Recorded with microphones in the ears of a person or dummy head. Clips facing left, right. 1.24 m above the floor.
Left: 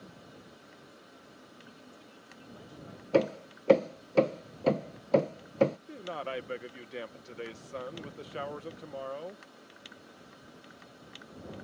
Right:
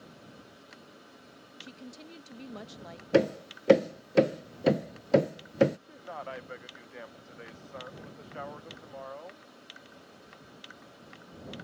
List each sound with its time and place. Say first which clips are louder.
1.6 s a woman speaking: right 6 dB; 80° right
3.1 s hammering: right 2 dB; 15° right (ahead or behind)
5.9 s a man speaking: left 4 dB; 45° left (ahead or behind)